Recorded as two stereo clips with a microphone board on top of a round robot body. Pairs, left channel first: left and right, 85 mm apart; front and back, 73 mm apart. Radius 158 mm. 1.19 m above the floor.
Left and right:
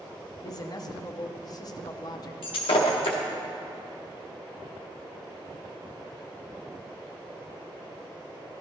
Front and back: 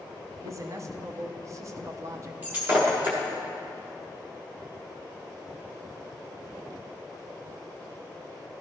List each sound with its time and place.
0.4 s a man speaking: 130° left, 0.8 m
2.4 s breaking glass: 110° left, 0.6 m